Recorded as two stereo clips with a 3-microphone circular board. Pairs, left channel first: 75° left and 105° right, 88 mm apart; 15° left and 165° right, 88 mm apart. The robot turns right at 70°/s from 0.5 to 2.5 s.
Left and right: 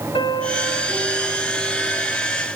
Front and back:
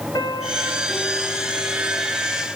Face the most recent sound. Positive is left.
turn(degrees=-160)